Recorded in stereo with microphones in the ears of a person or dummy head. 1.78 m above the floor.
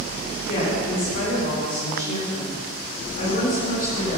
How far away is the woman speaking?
About 5 m.